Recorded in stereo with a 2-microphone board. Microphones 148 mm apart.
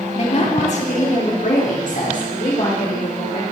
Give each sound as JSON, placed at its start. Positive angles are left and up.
{"t": 0.1, "sound": "a woman speaking", "side_deg": 45, "distance_m": 1.2}